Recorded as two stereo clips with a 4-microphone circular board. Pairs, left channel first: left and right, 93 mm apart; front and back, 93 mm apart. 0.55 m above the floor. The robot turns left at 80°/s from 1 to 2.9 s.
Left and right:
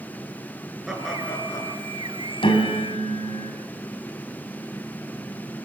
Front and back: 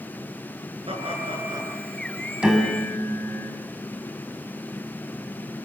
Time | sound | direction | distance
0.9 | laughter | 175° right | 7.5 m
2.4 | a piano | 100° left | 4.5 m